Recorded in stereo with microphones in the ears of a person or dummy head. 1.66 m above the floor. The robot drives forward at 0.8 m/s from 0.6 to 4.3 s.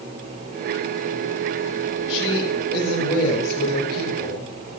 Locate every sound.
2.1 s a woman speaking: 20° left (ahead or behind), 8 m; by 4.5 s 30° left (ahead or behind), 6.5 m